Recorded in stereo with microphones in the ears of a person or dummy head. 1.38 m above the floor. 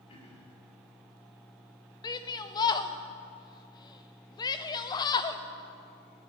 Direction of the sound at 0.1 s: 30° left (ahead or behind).